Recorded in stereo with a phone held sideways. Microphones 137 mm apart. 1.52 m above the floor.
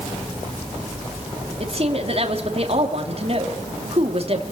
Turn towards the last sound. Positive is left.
turn(degrees=-45)  # may be behind; listen again after turning